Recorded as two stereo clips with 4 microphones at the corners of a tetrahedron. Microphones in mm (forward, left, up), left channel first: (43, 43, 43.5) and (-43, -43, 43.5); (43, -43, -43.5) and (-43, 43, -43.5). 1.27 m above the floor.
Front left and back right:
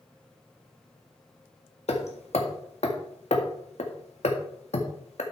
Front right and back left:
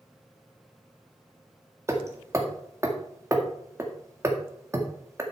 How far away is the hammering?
About 1.8 m.